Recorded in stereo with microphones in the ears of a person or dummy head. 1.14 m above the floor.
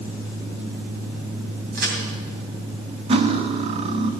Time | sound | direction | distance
1.7 | a crack | 55° right (ahead or behind) | 2.5 m
3.1 | cutlery clinking | 35° right (ahead or behind) | 0.8 m